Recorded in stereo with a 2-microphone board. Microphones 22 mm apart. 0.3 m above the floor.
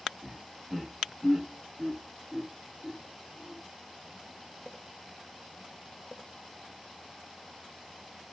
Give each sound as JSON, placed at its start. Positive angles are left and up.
{"t": 0.2, "sound": "laughter", "side_deg": -25, "distance_m": 0.9}